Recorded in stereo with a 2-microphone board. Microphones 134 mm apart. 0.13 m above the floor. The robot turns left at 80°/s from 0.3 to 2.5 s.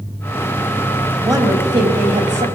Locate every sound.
1.2 s a woman speaking: 20° right, 4 m; by 2.5 s 120° right, 4 m